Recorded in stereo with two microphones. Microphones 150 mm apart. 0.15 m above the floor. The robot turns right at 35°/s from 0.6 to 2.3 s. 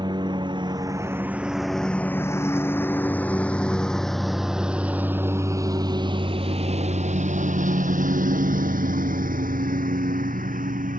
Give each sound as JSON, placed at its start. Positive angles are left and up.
{"t": 0.0, "sound": "a lawn mower", "side_deg": -30}